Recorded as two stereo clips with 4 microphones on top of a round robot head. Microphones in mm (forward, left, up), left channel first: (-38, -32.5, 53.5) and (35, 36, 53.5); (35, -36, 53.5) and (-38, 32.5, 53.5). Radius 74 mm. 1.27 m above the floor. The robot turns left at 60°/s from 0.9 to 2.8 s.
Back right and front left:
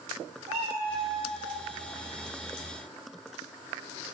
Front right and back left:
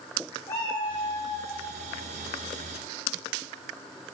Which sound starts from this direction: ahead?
A cat meowing, at 0.5 s.